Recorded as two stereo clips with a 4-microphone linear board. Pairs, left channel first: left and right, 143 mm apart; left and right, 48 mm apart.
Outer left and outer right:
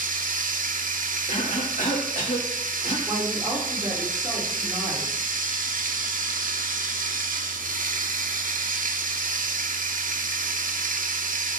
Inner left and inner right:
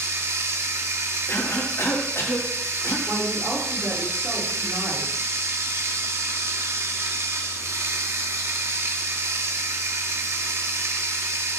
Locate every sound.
0.0 s running water: 70° right (ahead or behind), 0.7 m
1.3 s a cough: 70° left (ahead or behind), 2.5 m
3.1 s a woman speaking: 25° right (ahead or behind), 3 m